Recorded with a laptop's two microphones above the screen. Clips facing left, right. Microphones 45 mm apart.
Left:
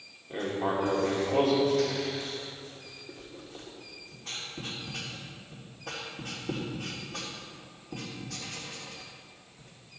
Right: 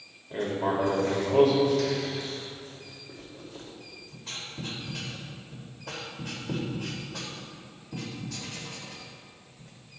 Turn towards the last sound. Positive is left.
turn(degrees=85)